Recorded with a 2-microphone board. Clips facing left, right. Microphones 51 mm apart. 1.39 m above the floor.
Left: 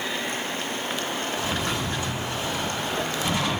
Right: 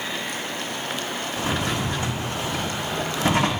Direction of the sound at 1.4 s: 55° right (ahead or behind).